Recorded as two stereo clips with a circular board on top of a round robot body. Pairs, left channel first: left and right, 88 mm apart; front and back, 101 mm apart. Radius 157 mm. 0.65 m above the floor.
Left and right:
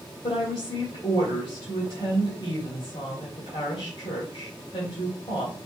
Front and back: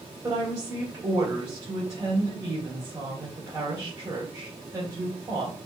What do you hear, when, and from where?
0.2 s a woman speaking: 120° left, 3 m